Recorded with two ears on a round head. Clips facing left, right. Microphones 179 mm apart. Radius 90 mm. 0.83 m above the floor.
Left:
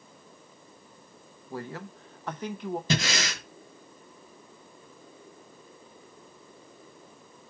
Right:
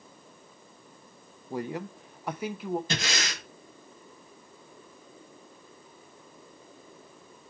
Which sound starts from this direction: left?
Breathing, at 2.9 s.